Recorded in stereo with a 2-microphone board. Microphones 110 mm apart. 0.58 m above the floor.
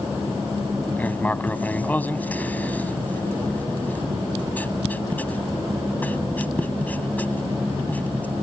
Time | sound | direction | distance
1.0 | writing | 15° left (ahead or behind) | ?